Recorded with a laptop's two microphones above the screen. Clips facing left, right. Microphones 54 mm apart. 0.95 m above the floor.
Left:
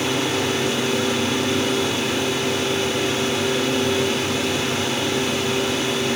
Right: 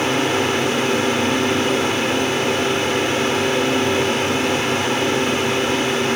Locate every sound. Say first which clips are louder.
0.0 s a fan: right 3 dB; 45° right (ahead or behind), 0.9 m